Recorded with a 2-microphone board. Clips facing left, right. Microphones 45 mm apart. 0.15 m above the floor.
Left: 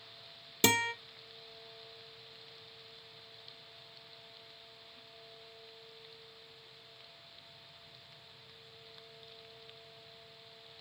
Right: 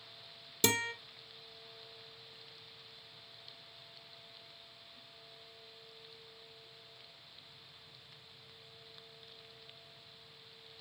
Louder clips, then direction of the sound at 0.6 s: Left 4 dB; 35° left (ahead or behind).